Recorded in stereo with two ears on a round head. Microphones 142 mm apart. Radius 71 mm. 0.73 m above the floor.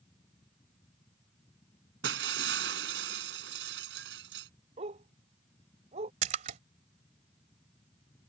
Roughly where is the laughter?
I don't hear laughter.